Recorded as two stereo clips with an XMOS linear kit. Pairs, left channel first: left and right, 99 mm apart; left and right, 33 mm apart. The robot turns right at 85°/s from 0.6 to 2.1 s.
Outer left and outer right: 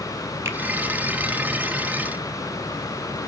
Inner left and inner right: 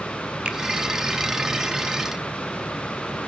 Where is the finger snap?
30° right (ahead or behind), 1.2 m.